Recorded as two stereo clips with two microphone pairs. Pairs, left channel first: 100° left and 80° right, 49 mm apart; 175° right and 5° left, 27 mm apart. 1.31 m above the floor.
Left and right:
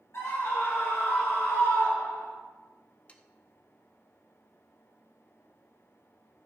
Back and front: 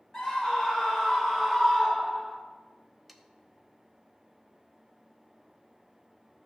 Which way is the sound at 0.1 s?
120° left.